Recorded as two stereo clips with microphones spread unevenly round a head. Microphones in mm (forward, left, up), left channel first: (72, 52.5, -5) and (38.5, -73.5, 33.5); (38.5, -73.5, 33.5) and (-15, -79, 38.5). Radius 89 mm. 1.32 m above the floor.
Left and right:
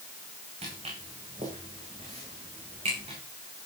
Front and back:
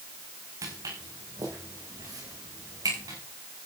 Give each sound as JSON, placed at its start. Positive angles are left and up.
{"t": 0.6, "sound": "footsteps", "azimuth_deg": -160, "distance_m": 6.5}